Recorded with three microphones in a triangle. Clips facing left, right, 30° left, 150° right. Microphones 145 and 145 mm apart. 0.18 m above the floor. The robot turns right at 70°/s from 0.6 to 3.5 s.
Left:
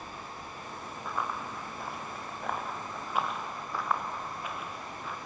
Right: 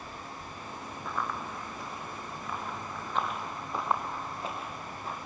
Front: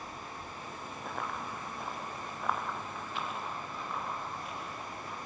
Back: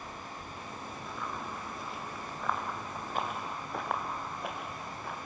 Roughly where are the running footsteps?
Ahead.